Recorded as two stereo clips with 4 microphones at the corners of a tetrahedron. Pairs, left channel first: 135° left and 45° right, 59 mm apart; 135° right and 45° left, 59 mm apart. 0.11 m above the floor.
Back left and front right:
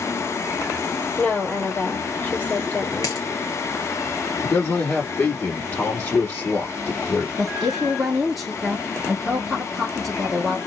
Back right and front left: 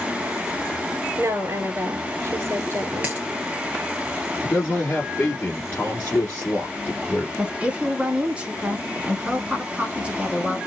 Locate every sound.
1.2 s a woman speaking: 70° left, 2.5 m
3.0 s a dropped coin: 115° left, 2 m
4.4 s a man speaking: 170° left, 1.7 m
7.4 s a woman speaking: 45° left, 1.1 m